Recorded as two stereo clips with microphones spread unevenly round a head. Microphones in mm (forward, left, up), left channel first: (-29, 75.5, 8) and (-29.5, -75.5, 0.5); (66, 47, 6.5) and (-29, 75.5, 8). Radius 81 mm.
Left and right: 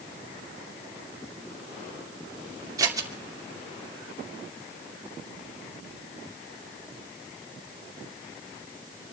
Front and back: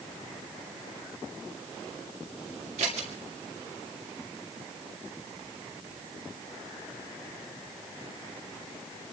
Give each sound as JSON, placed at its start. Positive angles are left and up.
{"t": 2.8, "sound": "scissors", "azimuth_deg": -155, "distance_m": 2.5}